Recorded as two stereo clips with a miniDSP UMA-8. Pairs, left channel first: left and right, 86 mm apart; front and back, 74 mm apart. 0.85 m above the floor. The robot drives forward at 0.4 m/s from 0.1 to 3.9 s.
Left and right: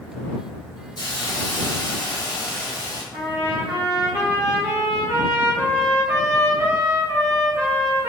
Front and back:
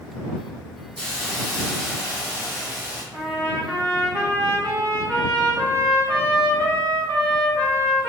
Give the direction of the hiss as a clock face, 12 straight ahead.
9 o'clock.